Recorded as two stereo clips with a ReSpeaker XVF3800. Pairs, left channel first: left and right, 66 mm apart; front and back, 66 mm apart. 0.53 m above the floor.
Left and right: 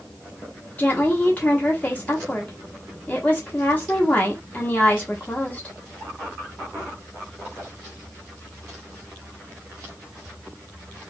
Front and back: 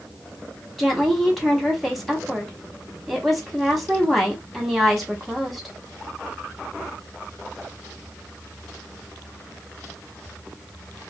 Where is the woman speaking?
90° left, 1.1 m.